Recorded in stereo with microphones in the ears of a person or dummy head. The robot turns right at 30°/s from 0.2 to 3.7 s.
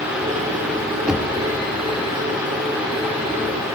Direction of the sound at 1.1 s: 5° right (ahead or behind).